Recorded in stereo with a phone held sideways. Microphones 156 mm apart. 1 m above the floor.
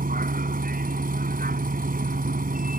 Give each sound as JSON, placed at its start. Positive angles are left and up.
{"t": 0.0, "sound": "a vehicle", "side_deg": -65}